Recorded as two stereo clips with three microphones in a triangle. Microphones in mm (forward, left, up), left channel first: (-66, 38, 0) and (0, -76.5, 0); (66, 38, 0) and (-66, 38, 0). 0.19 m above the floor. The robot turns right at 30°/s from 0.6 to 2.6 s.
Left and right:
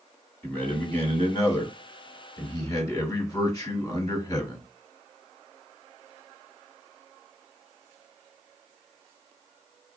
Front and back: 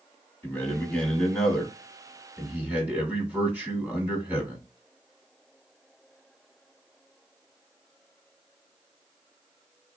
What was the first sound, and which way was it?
A man speaking, 60° left.